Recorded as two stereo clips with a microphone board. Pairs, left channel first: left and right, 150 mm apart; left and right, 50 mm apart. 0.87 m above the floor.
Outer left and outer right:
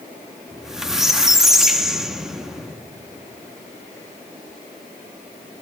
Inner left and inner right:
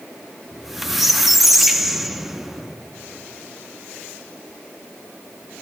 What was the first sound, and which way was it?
A squeak, 5° right (ahead or behind).